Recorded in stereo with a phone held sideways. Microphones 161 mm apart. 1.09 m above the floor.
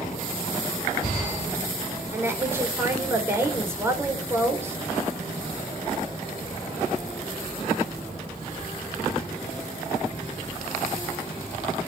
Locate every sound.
2.1 s a woman speaking: 15° right (ahead or behind), 4 m